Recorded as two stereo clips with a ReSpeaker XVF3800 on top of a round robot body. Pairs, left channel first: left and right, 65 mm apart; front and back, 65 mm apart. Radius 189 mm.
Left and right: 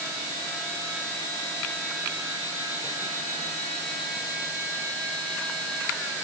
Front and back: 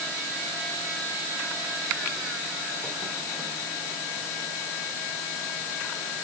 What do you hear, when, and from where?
Only background noise.